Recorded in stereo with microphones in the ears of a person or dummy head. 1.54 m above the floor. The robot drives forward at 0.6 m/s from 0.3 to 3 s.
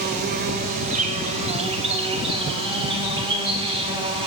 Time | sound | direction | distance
0.0 | an insect | 50° right (ahead or behind) | 1.7 m